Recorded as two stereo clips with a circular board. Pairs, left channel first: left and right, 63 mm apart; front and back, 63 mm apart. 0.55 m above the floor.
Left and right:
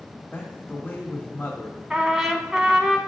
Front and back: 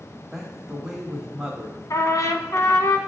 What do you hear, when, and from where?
0.3 s a man speaking: 100° left, 1.3 m
1.9 s a trumpet: 10° right, 0.7 m